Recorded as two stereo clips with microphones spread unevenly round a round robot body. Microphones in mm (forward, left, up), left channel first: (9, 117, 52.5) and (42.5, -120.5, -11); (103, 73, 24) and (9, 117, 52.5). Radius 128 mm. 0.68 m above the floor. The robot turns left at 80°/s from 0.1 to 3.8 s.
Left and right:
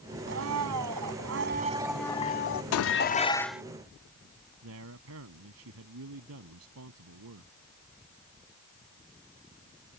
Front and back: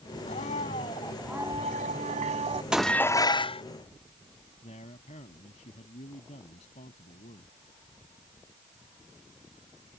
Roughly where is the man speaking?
Ahead right.